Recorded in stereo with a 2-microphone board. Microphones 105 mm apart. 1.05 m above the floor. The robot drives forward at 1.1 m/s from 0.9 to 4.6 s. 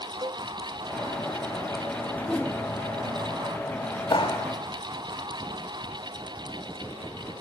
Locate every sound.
0.2 s a cowbell: 40° right (ahead or behind), 1.1 m
2.2 s a whoosh: 15° left (ahead or behind), 1.5 m; by 2.6 s 10° left (ahead or behind), 1.9 m
4.1 s a clap: 45° left (ahead or behind), 5 m; by 4.5 s 40° left (ahead or behind), 5 m